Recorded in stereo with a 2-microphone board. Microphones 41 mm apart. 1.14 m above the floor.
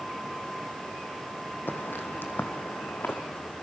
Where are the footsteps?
55° left (ahead or behind), 2 m.